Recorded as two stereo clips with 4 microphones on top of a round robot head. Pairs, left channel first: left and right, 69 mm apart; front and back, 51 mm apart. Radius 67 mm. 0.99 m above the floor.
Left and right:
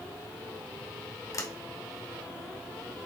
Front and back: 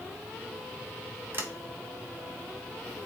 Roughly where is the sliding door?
Behind left.